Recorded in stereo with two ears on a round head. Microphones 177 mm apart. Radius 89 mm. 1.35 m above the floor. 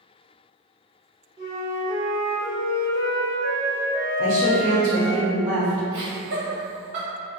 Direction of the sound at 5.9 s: 35° right (ahead or behind).